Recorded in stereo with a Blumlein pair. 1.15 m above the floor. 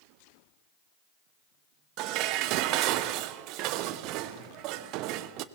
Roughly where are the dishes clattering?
Ahead right.